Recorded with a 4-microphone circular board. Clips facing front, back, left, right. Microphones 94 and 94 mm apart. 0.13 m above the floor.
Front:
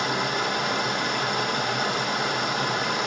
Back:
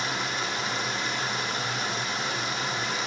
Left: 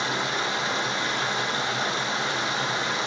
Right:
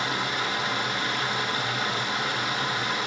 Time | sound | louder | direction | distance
0.0 | running water | front 5 dB, left 1 dB | 25° left | 0.7 m